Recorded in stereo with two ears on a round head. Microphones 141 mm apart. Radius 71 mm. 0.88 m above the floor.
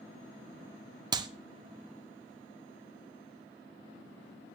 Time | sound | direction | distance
1.1 | a clap | 25° right (ahead or behind) | 1.0 m